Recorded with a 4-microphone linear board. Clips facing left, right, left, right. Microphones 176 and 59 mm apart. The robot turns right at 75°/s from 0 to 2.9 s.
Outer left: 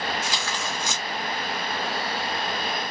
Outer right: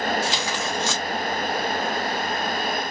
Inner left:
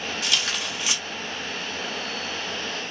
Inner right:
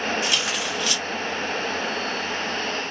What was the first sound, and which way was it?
Tearing paper, 35° right.